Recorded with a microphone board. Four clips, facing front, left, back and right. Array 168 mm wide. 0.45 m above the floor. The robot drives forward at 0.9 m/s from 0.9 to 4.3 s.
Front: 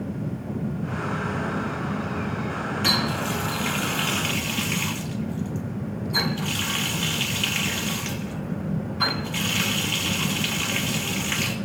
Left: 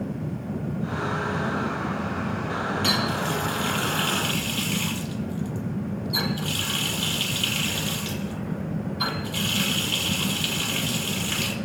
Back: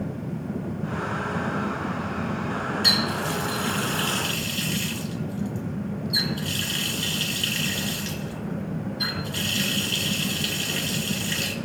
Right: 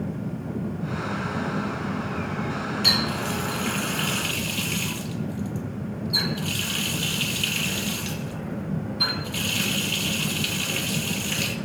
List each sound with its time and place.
2.8 s a running tap: 10° left, 4 m; by 11.6 s 20° left, 2.5 m